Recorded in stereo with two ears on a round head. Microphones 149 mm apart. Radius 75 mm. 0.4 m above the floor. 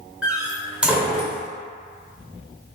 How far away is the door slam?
About 0.6 m.